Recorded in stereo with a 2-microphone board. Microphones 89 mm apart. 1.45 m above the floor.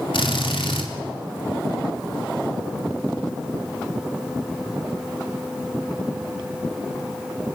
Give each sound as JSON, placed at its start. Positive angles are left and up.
{"t": 0.1, "sound": "a drill", "side_deg": 75, "distance_m": 3.5}